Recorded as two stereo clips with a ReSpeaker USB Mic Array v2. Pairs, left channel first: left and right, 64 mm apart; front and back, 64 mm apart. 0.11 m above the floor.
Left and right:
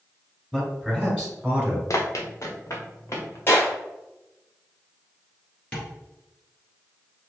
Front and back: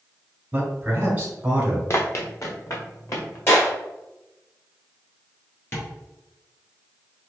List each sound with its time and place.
0.5 s a man speaking: 170° right, 1.6 m; by 1.8 s 135° right, 1.8 m
1.9 s running footsteps: 50° left, 0.9 m; by 3.4 s 45° left, 1.9 m
3.5 s a clap: 40° left, 2 m
5.7 s tapping: 25° left, 2 m